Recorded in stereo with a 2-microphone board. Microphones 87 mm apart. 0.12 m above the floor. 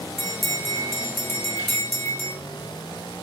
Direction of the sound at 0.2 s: 5° left (ahead or behind).